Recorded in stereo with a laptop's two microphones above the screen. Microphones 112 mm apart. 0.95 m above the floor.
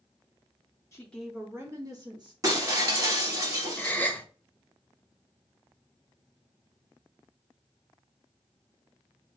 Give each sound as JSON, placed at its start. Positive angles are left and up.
{"t": 0.9, "sound": "a woman speaking", "side_deg": 25, "distance_m": 0.6}
{"t": 2.4, "sound": "breaking glass", "side_deg": -30, "distance_m": 1.1}
{"t": 3.8, "sound": "a gasp", "side_deg": 15, "distance_m": 0.7}